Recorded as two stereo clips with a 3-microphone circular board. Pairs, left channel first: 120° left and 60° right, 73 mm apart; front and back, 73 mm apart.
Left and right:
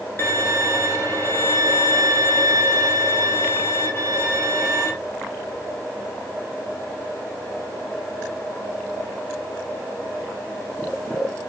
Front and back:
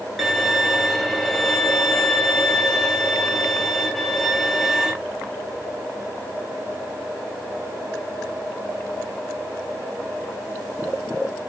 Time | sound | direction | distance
0.2 | a violin | 95° left | 0.9 m